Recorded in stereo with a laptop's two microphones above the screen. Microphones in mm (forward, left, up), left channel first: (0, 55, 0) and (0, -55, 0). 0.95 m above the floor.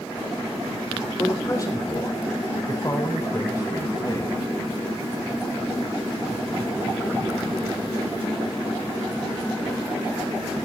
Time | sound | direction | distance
1.2 | a man speaking | 30° left (ahead or behind) | 4 m